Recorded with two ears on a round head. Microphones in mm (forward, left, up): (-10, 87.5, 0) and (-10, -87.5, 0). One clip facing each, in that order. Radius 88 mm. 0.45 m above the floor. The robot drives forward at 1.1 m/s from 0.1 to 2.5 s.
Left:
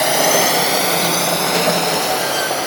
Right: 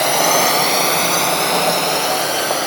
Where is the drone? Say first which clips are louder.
Left 1 dB; 5° left (ahead or behind); by 2.7 s centre (ahead or behind).